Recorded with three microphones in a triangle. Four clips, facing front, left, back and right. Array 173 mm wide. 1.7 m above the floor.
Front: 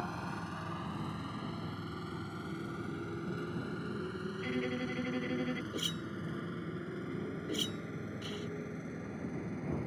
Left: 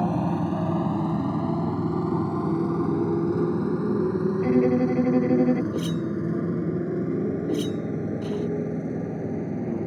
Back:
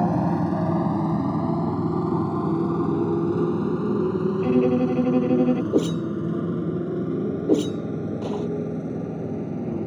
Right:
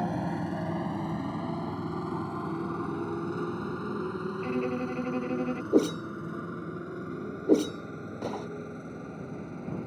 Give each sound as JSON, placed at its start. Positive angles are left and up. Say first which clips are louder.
{"t": 0.0, "sound": "a motorcycle", "louder": "left 6 dB, back 18 dB", "azimuth_deg": 160}
{"t": 4.4, "sound": "a violin", "louder": "left 11 dB, back 17 dB", "azimuth_deg": 140}
{"t": 5.7, "sound": "a whoosh", "louder": "right 1 dB, back 18 dB", "azimuth_deg": -145}